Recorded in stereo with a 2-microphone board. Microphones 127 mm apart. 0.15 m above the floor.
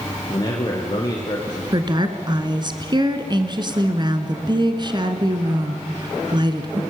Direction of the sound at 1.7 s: 35° right (ahead or behind).